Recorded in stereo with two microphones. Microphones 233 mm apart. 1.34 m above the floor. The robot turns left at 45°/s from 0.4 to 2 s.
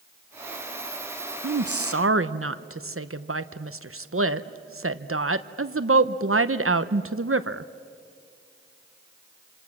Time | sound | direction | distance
1.4 | a woman speaking | 80° right | 0.8 m